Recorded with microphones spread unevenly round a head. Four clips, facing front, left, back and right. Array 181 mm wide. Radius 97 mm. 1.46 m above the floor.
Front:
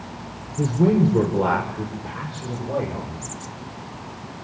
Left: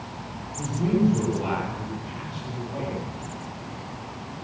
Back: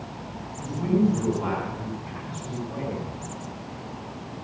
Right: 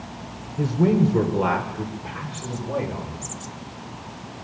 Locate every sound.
0.6 s a man speaking: 40° right, 6.5 m; by 3.2 s 35° right, 8 m